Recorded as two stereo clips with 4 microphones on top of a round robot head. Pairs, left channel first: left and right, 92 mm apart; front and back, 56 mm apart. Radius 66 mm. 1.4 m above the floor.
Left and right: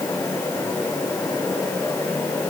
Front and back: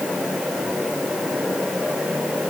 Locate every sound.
Only background noise.